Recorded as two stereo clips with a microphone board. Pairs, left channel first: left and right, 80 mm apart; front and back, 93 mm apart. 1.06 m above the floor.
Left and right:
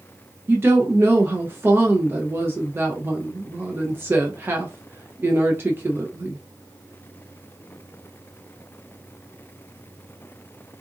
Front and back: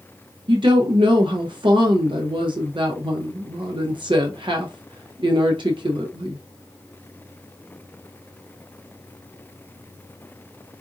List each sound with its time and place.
0.5 s a woman speaking: 150° right, 0.7 m